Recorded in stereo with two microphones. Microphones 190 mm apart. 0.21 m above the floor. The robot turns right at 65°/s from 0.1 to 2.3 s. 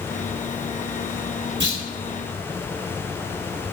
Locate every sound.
1.6 s a clunk: 80° right, 1.3 m; by 1.8 s 70° right (ahead or behind), 1.3 m